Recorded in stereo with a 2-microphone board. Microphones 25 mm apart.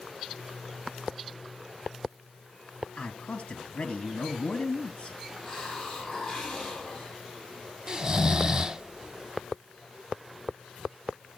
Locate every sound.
3.0 s a man speaking: 45° left (ahead or behind), 2 m
5.4 s a hiss: 20° left (ahead or behind), 6.5 m
7.9 s snoring: 30° right (ahead or behind), 0.5 m